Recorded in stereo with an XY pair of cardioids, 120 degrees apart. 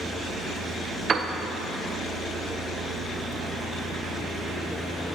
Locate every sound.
1.1 s a piano: 35° right, 0.7 m